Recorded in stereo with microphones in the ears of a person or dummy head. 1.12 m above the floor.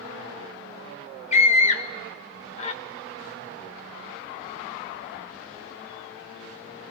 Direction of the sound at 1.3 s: 40° left (ahead or behind).